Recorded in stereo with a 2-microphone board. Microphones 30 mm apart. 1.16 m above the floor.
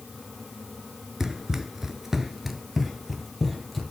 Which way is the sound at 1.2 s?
15° right (ahead or behind).